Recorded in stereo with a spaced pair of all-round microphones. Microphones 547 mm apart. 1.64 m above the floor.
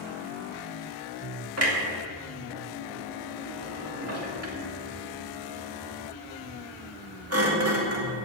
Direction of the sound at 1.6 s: 25° right (ahead or behind).